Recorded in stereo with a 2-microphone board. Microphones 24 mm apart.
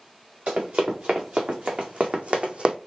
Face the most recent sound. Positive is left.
turn(degrees=-50)  # may be behind; listen again after turning